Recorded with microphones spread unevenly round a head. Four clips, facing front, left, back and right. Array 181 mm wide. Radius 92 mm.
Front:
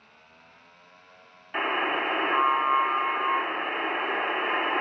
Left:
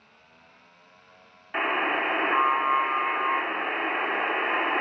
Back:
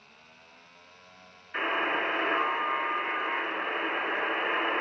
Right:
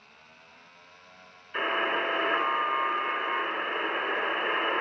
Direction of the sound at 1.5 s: 55° left.